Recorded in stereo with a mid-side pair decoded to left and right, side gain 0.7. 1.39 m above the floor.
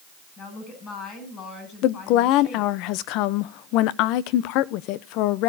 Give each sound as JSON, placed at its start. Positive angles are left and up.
{"t": 0.4, "sound": "a woman speaking", "azimuth_deg": 45, "distance_m": 7.5}
{"t": 1.8, "sound": "a woman speaking", "azimuth_deg": 65, "distance_m": 0.7}